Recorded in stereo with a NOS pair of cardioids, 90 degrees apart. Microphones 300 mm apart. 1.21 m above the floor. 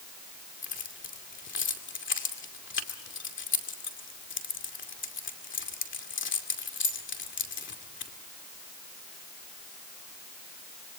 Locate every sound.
0.6 s keys jangling: 40° left, 2.5 m